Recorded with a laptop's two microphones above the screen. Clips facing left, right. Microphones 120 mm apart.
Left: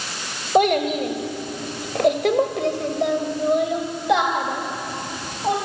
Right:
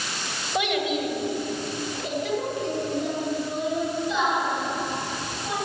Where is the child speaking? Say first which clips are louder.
Left 8 dB; 45° left (ahead or behind), 3 m; by 5.5 s 60° left (ahead or behind), 4 m.